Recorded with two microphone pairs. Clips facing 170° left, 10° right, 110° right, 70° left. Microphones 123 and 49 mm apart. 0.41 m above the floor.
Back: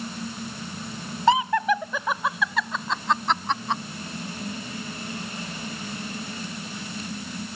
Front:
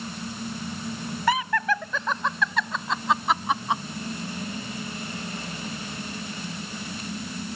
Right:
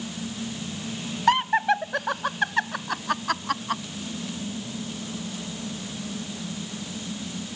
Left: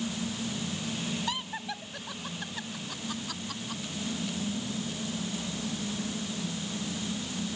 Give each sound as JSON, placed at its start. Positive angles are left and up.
{"t": 1.3, "sound": "laughter", "azimuth_deg": -130}